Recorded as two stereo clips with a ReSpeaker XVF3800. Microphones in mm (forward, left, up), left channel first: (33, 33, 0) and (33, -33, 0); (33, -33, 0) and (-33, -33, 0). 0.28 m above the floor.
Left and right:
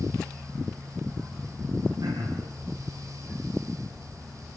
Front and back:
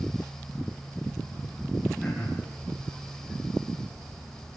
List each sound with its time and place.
2.0 s throat clearing: 85° right, 9.5 m